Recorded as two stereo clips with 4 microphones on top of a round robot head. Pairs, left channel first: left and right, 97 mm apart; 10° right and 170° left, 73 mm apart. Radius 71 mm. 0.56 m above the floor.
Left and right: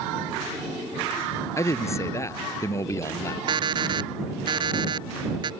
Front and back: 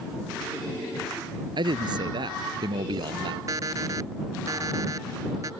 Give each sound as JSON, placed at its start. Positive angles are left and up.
{"t": 1.6, "sound": "a man speaking", "azimuth_deg": 150}
{"t": 3.5, "sound": "an alarm clock", "azimuth_deg": -130}